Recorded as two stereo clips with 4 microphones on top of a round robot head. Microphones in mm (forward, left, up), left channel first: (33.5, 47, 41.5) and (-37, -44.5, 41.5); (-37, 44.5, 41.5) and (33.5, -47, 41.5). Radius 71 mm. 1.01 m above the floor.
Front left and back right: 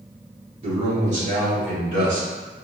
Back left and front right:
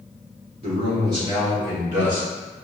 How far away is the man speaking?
About 1.7 m.